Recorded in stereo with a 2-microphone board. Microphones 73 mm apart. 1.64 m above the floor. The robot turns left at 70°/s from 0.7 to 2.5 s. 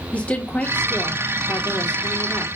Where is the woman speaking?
160° left, 2.5 m; by 2.5 s 35° left, 2.5 m.